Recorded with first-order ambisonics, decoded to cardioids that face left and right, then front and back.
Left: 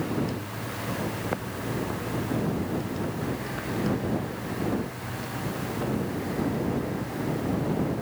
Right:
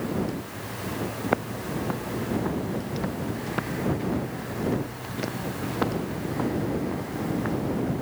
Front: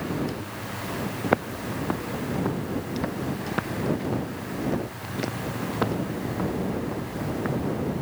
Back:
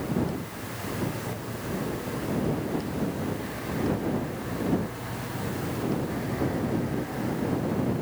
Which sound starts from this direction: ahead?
Footsteps, at 1.2 s.